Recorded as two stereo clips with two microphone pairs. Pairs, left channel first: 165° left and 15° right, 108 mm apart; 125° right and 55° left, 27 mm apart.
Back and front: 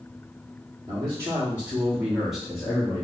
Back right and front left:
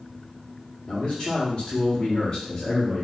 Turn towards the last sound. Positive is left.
turn(degrees=-130)